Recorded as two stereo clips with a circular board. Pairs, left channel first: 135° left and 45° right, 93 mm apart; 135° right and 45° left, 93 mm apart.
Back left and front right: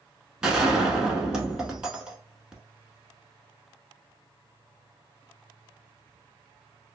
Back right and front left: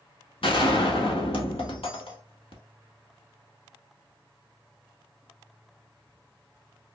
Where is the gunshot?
125° right, 1.0 m.